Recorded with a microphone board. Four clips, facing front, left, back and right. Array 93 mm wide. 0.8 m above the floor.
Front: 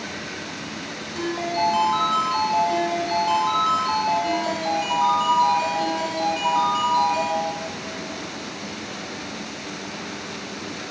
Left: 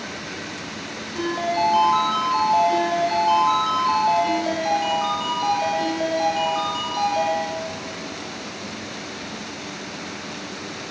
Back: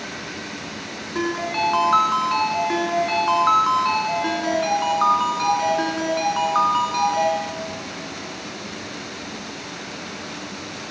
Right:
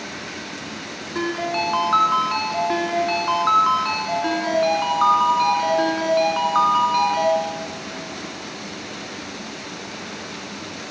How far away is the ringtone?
About 5 m.